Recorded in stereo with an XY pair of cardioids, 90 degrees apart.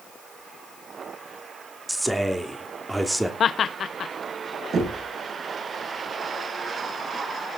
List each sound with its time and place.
1.9 s a man speaking: 10° right, 3 m
3.4 s laughter: 55° left, 0.5 m
4.7 s knocking: 55° right, 8 m